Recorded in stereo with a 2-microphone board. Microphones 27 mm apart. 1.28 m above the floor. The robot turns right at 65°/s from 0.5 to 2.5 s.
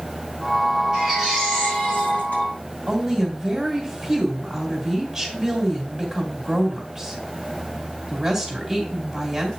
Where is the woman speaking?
5° right (ahead or behind), 3 m.